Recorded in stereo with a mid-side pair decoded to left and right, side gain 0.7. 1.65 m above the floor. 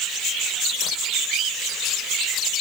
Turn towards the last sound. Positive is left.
No sound to turn to.